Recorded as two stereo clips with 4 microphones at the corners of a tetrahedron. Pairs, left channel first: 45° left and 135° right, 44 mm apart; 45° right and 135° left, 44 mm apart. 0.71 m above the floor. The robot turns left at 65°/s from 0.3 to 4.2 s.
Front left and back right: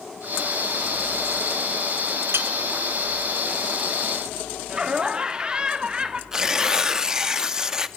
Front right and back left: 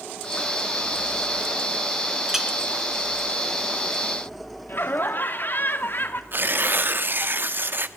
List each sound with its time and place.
2.3 s a clink: 145° right, 1.6 m; by 2.5 s 155° right, 1.6 m
4.7 s laughter: 70° right, 1.7 m
6.3 s tearing paper: 155° left, 1.0 m